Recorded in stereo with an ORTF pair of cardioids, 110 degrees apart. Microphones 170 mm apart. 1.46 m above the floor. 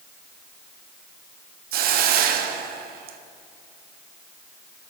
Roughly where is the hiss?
Ahead right.